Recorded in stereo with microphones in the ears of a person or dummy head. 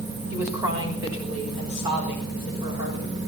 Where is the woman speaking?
15° right (ahead or behind), 3 m; by 3.2 s 40° right (ahead or behind), 5.5 m.